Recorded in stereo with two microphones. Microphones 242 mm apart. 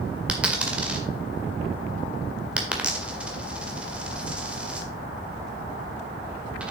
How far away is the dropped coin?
About 1.6 m.